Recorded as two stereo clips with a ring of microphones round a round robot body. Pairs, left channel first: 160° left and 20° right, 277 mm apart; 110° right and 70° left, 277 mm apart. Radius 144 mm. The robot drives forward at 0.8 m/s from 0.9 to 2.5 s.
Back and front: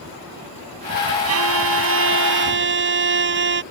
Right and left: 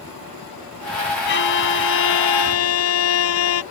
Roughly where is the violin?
Ahead right.